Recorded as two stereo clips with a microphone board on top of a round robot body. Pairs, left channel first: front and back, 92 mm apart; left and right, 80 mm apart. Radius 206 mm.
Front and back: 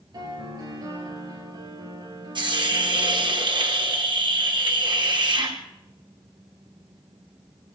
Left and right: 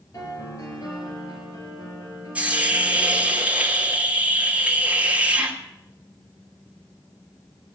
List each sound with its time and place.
0.1 s a piano: 135° left, 3 m
2.4 s a hiss: 160° right, 3 m